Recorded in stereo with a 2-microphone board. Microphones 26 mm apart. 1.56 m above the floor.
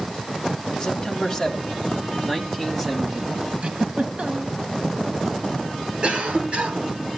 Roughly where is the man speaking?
Left.